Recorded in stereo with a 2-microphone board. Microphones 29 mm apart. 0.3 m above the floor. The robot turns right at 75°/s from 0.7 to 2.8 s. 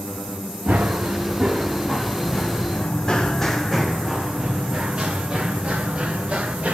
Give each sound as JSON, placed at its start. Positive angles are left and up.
{"t": 0.7, "sound": "running footsteps", "side_deg": -70, "distance_m": 1.8}